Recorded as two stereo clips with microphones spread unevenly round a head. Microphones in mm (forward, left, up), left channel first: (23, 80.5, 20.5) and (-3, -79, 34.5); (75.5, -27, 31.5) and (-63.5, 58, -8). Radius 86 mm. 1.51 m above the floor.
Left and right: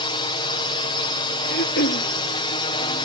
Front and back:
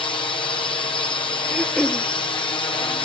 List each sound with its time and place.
0.0 s a drone: 35° left
1.5 s throat clearing: 55° left